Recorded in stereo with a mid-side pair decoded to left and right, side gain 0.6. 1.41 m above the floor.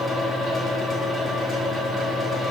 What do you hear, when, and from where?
0.0 s a fan: 10° left, 5 m